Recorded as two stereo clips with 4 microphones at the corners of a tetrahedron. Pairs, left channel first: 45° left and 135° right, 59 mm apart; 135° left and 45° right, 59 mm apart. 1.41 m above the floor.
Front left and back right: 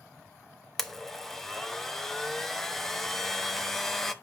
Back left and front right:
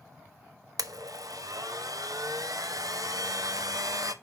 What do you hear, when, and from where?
0.8 s a blender: 40° right, 0.7 m